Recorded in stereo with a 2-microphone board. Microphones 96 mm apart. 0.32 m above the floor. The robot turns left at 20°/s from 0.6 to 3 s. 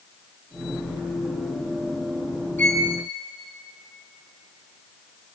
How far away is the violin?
About 2.5 m.